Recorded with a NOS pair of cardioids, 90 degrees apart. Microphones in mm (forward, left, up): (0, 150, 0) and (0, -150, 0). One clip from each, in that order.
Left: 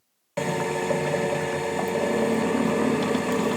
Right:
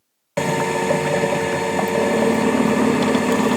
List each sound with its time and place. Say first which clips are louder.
0.4 s a drill: right 6 dB; 25° right, 0.6 m